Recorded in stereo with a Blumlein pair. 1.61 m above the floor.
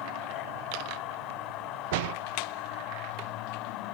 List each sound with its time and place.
0.0 s a machine running: 40° left
1.9 s a door slam: 50° right